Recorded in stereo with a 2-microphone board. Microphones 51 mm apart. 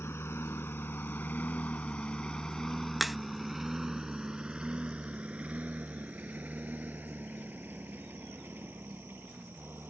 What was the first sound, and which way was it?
A lawn mower, 55° left (ahead or behind).